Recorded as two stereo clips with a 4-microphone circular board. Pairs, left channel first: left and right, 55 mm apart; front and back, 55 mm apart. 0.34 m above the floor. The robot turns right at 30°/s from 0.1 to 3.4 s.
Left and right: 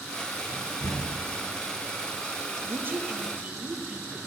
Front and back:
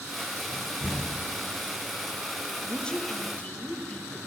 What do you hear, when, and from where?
0.5 s a door slam: 95° left, 9 m; by 1.2 s 120° left, 9 m
2.6 s a woman speaking: 70° right, 1.3 m; by 4.2 s 50° right, 1.3 m